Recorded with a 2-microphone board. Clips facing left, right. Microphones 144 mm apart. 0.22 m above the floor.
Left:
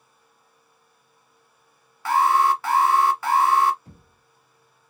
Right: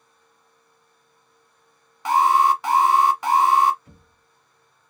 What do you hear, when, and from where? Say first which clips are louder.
2.0 s an alarm: right 2 dB; 20° right (ahead or behind), 0.7 m
3.9 s knocking: left 2 dB; 35° left (ahead or behind), 1.1 m